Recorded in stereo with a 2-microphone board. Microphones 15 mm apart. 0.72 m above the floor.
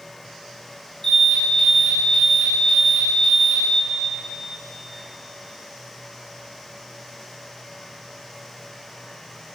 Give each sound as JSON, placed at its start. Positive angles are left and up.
{"t": 1.0, "sound": "an alarm", "side_deg": 30, "distance_m": 6.0}